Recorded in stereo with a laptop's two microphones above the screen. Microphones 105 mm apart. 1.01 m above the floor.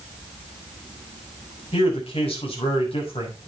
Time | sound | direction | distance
1.7 | a man speaking | 70° left (ahead or behind) | 5.5 m